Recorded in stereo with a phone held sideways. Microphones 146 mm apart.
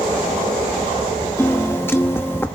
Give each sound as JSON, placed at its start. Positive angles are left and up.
{"t": 1.4, "sound": "a piano", "side_deg": 15, "distance_m": 0.8}